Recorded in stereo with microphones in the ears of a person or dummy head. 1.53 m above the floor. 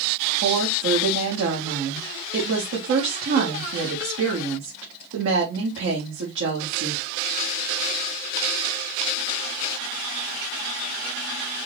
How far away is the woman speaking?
About 1.3 m.